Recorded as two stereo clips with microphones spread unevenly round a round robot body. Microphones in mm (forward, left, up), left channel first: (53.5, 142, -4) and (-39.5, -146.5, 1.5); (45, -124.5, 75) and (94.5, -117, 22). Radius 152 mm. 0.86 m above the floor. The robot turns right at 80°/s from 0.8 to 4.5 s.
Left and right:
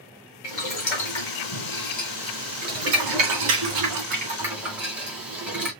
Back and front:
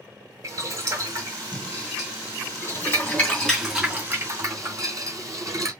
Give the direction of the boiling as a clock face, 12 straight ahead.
11 o'clock.